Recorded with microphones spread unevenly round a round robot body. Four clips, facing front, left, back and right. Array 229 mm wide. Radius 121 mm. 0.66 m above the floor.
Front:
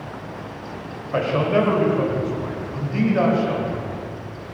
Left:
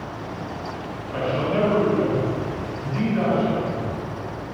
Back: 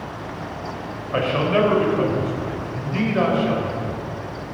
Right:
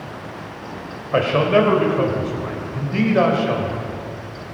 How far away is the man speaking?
About 3.5 m.